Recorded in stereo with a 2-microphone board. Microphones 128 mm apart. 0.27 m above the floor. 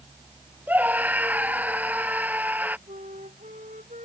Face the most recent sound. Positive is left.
turn(degrees=-75)  # may be behind; listen again after turning